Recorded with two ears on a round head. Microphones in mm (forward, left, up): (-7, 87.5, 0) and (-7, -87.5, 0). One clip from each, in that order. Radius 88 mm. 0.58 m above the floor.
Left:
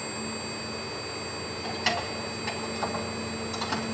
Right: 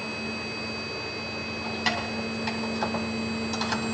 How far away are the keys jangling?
About 3 m.